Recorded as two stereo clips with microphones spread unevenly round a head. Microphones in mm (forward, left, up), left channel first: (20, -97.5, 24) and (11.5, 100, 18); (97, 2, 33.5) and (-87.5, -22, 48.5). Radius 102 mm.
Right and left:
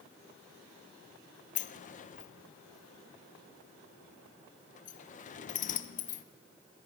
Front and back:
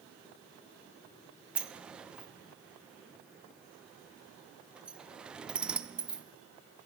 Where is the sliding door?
85° right, 0.5 m.